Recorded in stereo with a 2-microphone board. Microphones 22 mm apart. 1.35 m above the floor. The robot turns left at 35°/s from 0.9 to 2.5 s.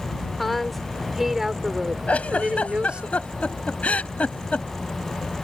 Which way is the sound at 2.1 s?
85° left.